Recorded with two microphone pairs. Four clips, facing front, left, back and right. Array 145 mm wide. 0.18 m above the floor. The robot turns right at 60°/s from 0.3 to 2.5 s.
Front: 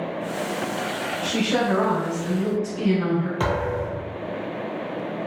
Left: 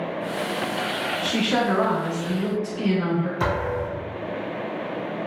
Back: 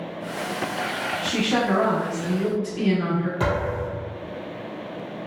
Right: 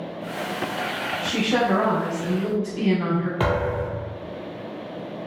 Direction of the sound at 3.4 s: 70° right.